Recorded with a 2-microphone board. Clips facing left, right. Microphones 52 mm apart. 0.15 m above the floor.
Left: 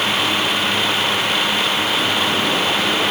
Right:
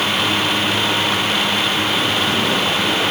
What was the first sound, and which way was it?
Only background noise.